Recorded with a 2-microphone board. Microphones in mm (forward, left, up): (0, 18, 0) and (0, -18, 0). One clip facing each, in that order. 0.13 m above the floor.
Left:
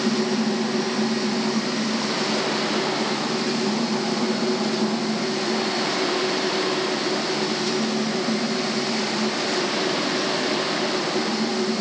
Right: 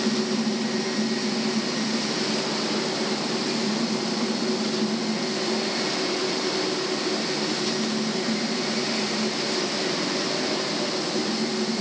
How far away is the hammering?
I don't hear hammering.